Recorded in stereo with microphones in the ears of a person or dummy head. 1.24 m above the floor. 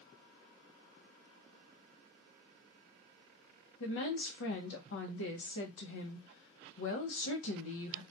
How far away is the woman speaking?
About 0.8 m.